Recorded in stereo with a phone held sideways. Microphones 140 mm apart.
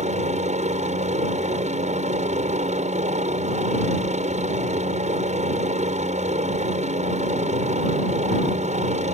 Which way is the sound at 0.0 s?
55° right (ahead or behind).